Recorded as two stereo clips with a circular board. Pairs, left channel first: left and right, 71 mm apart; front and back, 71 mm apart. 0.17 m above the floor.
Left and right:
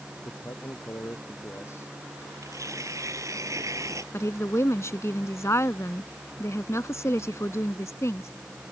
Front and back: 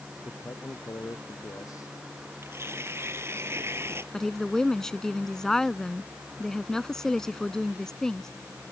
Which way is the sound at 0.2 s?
45° left.